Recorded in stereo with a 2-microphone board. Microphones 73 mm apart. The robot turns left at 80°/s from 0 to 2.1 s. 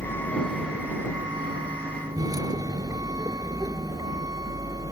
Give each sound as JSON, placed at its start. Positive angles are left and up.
{"t": 0.0, "sound": "a vehicle", "azimuth_deg": 45}